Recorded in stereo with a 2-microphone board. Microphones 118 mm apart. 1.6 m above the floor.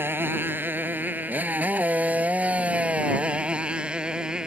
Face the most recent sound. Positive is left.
turn(degrees=-5)  # may be behind; listen again after turning